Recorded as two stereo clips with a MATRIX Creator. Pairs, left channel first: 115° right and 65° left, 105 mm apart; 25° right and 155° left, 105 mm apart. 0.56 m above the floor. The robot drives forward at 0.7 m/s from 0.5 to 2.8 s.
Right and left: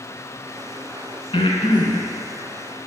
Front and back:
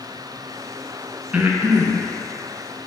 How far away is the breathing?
About 0.8 m.